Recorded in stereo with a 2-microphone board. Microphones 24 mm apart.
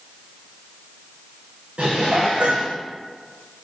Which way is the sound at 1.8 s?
55° right (ahead or behind).